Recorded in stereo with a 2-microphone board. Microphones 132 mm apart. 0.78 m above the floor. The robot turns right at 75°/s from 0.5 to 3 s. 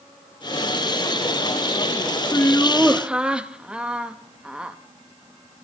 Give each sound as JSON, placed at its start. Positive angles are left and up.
{"t": 2.3, "sound": "laughter", "azimuth_deg": 140, "distance_m": 0.7}